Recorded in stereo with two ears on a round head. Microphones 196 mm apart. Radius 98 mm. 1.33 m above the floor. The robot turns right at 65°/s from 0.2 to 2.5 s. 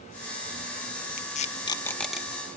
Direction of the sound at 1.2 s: 40° left (ahead or behind).